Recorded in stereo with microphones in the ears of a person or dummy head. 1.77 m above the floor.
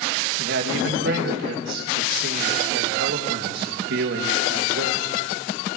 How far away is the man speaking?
About 2.5 m.